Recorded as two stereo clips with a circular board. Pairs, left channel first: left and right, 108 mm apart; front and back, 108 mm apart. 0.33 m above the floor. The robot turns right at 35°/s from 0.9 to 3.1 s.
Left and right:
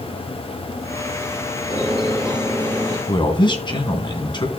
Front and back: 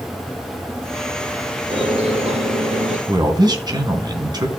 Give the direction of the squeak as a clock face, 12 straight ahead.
8 o'clock.